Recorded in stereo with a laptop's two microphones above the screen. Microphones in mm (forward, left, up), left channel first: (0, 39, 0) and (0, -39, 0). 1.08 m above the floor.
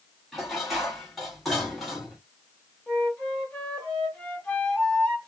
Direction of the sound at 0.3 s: Centre (ahead or behind).